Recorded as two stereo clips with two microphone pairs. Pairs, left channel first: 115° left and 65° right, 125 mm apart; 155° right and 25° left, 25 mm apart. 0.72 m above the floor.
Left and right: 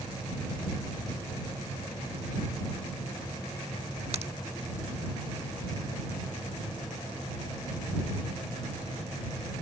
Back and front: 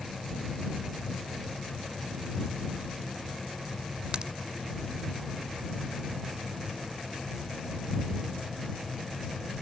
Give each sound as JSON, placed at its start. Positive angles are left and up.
{"t": 4.1, "sound": "a crack", "azimuth_deg": -30}